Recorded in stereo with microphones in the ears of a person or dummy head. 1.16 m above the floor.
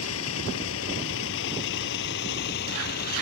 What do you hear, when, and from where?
0.0 s a vehicle: 90° left; by 3.2 s 55° left (ahead or behind)